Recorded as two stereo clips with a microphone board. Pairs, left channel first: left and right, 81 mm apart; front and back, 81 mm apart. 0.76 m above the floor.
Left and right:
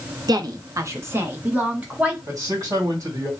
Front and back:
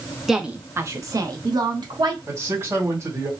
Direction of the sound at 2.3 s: 130° right.